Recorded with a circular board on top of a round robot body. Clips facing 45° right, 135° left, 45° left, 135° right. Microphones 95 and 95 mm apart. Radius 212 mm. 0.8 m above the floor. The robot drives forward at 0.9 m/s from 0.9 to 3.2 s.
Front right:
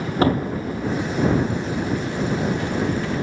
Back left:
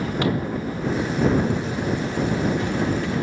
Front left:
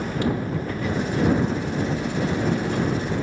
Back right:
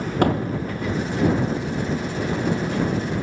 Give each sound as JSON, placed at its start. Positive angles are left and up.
{"t": 0.2, "sound": "a door slam", "azimuth_deg": -100}